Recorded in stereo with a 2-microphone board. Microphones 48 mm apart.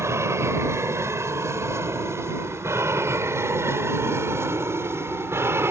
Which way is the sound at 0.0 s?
70° right (ahead or behind).